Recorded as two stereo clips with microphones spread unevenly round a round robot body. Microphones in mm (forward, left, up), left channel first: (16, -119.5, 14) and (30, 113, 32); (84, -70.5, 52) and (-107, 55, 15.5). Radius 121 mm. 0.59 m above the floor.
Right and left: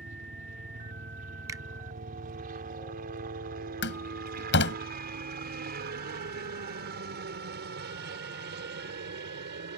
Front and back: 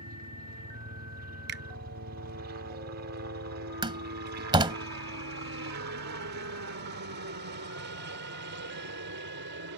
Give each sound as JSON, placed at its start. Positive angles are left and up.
{"t": 0.0, "sound": "a helicopter", "azimuth_deg": 140}
{"t": 1.5, "sound": "a finger snap", "azimuth_deg": 165}
{"t": 3.8, "sound": "a door slam", "azimuth_deg": -140}